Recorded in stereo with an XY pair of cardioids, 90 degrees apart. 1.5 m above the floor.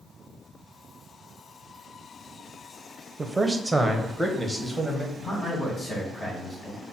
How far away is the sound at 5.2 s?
About 2.5 m.